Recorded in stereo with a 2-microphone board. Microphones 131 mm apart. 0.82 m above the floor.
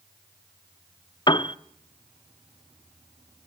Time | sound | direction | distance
1.3 | a piano | 35° left (ahead or behind) | 0.6 m